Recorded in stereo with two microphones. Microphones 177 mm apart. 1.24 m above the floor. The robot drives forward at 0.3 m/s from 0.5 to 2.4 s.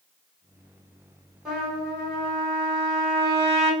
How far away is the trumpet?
About 1.5 m.